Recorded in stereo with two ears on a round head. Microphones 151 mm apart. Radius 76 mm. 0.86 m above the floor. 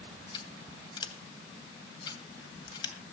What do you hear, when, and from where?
0.3 s scissors: 25° left (ahead or behind), 2 m